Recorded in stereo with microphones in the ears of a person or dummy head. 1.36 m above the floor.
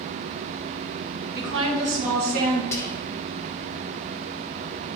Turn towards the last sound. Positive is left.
turn(degrees=15)  # may be behind; listen again after turning